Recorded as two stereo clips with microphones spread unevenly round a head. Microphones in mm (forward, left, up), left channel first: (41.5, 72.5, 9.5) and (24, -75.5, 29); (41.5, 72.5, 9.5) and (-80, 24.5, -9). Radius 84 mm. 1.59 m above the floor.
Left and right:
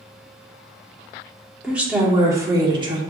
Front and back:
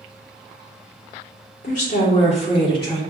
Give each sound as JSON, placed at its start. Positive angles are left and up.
{"t": 1.6, "sound": "a woman speaking", "azimuth_deg": -15, "distance_m": 1.3}